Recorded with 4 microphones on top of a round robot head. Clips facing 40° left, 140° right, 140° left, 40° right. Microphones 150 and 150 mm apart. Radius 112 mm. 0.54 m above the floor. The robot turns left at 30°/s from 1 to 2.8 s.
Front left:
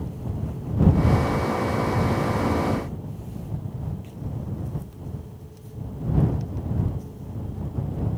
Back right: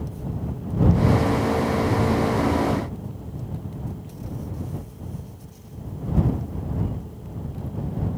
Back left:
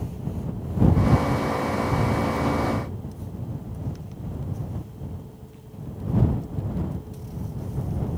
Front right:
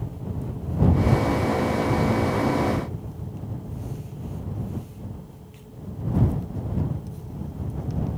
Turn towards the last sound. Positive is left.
No sound to turn to.